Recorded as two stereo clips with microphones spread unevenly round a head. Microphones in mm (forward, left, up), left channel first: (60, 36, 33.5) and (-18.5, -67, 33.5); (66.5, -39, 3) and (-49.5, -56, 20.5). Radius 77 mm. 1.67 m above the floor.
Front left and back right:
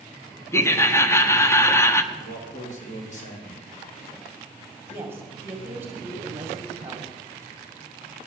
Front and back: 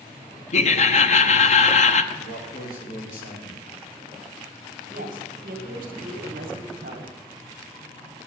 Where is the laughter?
20° right, 1.0 m.